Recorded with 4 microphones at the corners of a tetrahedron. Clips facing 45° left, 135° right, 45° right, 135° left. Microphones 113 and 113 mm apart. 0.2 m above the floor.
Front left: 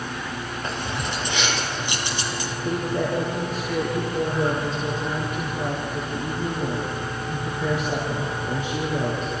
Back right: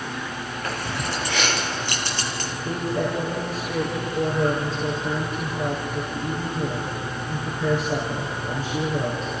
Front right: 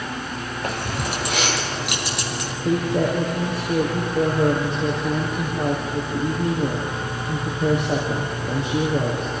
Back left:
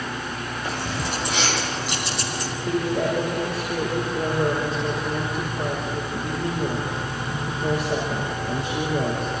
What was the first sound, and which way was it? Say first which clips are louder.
Keys jangling: back right 1 dB, front right 2 dB; 20° right.